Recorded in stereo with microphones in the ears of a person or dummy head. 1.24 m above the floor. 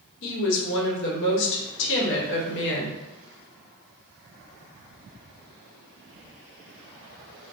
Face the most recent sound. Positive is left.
turn(degrees=60)  # may be behind; listen again after turning